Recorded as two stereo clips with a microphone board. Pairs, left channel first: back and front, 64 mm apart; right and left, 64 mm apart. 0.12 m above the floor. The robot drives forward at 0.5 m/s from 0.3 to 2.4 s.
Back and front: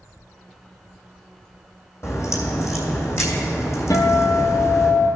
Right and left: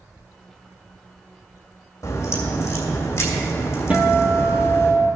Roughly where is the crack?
Behind right.